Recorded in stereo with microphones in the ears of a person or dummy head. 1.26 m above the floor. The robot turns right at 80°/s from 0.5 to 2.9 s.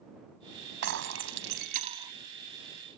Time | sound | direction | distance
0.8 | breaking glass | 115° right | ?